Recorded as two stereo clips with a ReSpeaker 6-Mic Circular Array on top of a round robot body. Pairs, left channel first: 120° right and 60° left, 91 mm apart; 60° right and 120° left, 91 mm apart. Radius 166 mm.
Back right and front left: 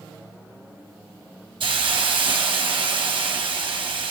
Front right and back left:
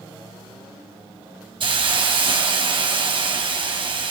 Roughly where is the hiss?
Left.